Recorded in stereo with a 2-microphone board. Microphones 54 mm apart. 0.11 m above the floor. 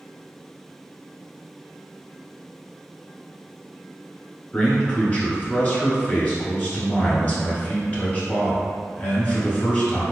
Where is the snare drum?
I don't hear a snare drum.